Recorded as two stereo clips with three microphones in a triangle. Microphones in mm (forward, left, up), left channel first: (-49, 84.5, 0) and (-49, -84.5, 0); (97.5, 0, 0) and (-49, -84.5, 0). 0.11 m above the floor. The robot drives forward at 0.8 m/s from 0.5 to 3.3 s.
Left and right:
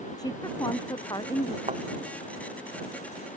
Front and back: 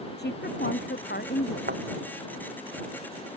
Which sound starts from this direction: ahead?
A woman speaking, at 0.2 s.